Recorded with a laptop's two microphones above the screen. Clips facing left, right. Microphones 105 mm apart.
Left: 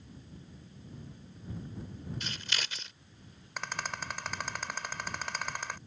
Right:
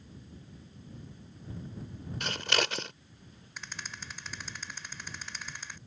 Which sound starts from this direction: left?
A rattle, at 3.6 s.